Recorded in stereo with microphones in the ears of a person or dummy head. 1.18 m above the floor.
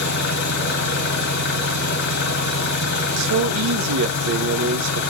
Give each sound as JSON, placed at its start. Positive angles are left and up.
{"t": 0.0, "sound": "an engine running", "side_deg": 60, "distance_m": 0.9}
{"t": 3.2, "sound": "a man speaking", "side_deg": -65, "distance_m": 0.7}